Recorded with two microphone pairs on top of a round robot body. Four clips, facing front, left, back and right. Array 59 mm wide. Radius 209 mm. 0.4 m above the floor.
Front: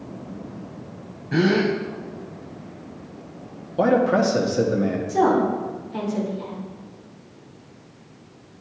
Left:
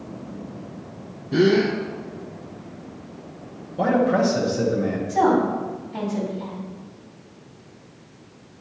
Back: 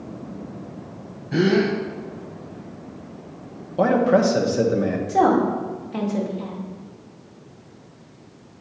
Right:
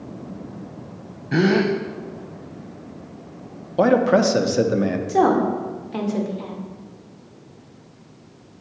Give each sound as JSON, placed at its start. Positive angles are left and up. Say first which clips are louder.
{"t": 1.3, "sound": "a gasp", "louder": "even, back 1 dB", "azimuth_deg": -85, "distance_m": 0.5}
{"t": 3.8, "sound": "a man speaking", "louder": "right 3 dB, back 1 dB", "azimuth_deg": -95, "distance_m": 1.3}
{"t": 5.1, "sound": "a woman speaking", "louder": "right 1 dB, back 2 dB", "azimuth_deg": -115, "distance_m": 2.0}